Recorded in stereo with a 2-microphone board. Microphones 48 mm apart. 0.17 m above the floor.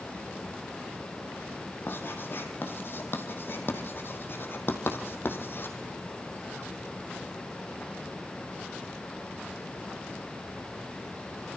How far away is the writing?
About 3.5 m.